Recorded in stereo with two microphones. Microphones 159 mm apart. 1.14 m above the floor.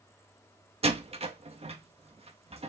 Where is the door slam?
40° right (ahead or behind), 1.4 m.